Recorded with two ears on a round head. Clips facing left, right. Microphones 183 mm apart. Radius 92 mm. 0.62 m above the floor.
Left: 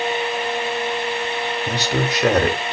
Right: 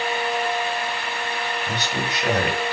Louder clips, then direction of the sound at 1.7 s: Left 5 dB; 60° left (ahead or behind).